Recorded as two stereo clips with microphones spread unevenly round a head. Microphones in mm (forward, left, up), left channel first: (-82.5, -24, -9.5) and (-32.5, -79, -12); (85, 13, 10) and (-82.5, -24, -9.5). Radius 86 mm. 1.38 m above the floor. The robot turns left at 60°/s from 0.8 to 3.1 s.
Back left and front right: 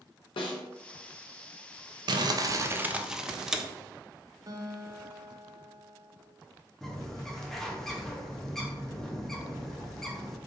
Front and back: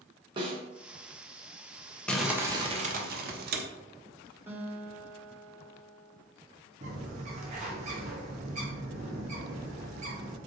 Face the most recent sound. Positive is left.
turn(degrees=-150)